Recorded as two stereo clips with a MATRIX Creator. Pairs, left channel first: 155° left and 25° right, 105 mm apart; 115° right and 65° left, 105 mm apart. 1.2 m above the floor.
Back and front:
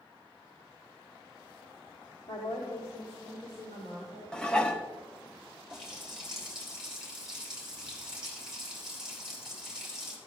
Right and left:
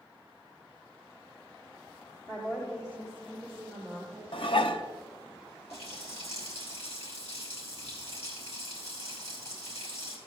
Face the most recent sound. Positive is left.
turn(degrees=-110)